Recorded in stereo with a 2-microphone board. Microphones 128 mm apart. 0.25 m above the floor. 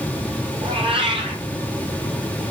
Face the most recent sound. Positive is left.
turn(degrees=-45)  # may be behind; listen again after turning